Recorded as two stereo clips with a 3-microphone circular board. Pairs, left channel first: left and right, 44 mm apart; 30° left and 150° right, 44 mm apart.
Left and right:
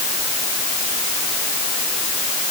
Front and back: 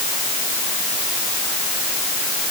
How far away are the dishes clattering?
No dishes clattering in this recording.